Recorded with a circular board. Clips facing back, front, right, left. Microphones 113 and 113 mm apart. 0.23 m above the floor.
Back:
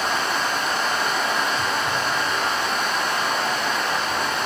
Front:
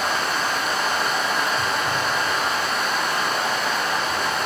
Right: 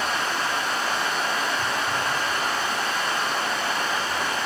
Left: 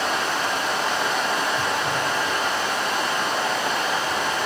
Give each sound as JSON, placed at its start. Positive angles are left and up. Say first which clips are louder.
{"t": 0.0, "sound": "running water", "louder": "even, left 2 dB", "azimuth_deg": 90, "distance_m": 3.0}